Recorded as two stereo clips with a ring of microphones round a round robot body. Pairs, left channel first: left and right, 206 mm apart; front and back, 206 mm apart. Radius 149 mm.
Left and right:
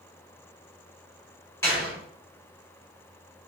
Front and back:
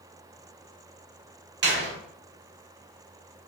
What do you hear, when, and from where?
1.6 s a door slam: 165° left, 1.2 m